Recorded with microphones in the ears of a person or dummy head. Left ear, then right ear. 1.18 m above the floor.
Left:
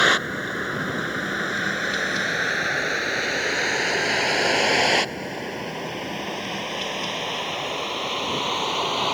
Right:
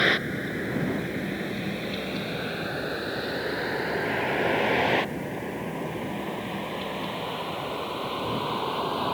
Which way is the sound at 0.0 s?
40° left (ahead or behind).